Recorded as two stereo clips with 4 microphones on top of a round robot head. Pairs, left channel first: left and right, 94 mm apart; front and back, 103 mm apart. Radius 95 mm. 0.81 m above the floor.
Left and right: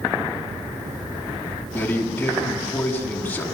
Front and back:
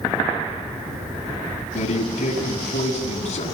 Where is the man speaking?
10° left, 7 m.